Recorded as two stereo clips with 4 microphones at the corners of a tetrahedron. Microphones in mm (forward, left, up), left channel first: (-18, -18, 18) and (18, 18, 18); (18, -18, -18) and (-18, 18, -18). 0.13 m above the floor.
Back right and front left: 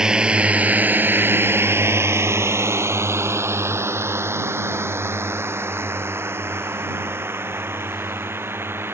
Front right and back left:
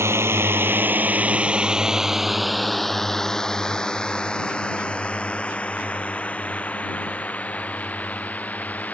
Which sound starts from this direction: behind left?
A drone, at 0.0 s.